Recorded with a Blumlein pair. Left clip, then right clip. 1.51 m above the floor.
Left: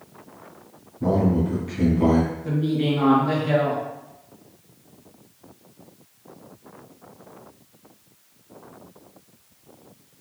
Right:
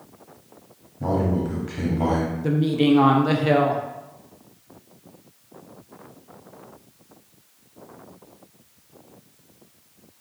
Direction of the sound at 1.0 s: 60° right.